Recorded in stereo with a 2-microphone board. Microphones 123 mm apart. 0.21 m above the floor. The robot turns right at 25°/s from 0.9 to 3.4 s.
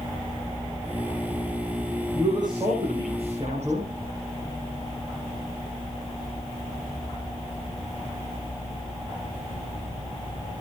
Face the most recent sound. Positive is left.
turn(degrees=-120)